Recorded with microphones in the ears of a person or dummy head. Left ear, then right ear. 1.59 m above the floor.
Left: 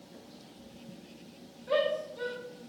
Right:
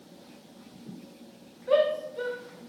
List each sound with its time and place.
1.7 s a shout: 20° right (ahead or behind), 0.5 m